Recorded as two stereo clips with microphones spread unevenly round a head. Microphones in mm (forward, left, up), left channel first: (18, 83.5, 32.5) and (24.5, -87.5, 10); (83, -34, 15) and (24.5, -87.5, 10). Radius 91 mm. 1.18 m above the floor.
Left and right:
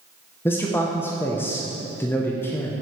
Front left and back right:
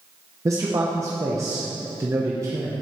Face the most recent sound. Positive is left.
turn(degrees=175)